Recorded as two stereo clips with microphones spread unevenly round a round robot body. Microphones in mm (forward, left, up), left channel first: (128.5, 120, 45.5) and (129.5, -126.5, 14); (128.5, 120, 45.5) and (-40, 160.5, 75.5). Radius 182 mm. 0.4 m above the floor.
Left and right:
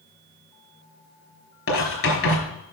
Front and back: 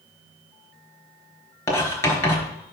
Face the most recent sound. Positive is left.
turn(degrees=60)